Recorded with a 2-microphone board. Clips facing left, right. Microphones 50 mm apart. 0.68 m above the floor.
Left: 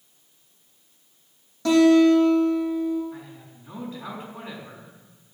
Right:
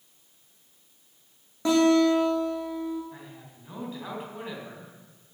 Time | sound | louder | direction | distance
1.6 | a guitar | left 5 dB | 20° right (ahead or behind) | 5.5 m
3.1 | a man speaking | left 4 dB | 5° right (ahead or behind) | 4 m